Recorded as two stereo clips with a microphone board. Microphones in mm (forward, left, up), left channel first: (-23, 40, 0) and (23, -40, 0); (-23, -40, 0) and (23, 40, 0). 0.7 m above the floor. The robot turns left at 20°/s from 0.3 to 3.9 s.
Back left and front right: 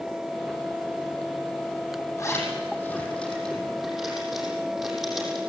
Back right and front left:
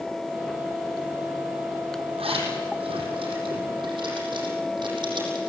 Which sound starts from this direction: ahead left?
A zipper, at 2.2 s.